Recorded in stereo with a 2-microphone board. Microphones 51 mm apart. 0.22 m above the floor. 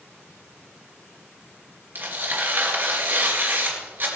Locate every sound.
1.9 s tearing paper: 45° right (ahead or behind), 4 m